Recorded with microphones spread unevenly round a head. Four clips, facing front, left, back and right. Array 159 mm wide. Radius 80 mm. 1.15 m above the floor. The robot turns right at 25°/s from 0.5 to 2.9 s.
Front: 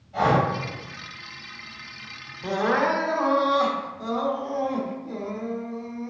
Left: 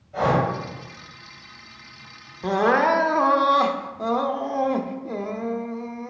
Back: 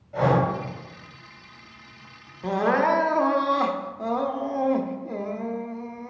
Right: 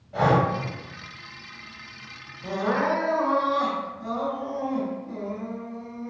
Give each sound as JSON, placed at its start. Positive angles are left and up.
{"t": 0.1, "sound": "breathing", "azimuth_deg": -135, "distance_m": 3.5}
{"t": 2.4, "sound": "crying", "azimuth_deg": 85, "distance_m": 0.7}